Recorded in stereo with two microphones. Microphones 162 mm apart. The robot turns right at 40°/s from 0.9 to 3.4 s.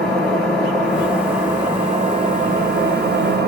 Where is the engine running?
175° left, 2 m; by 3.5 s 85° right, 2 m.